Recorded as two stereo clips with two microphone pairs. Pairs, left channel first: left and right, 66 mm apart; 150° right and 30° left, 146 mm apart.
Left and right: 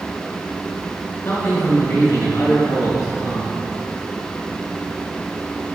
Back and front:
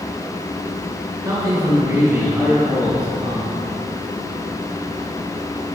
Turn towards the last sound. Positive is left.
turn(degrees=105)